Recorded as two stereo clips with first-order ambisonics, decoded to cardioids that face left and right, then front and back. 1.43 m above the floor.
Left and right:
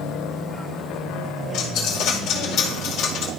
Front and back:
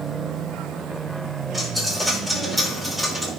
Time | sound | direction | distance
1.5 | a dropped coin | 90° left | 1.4 m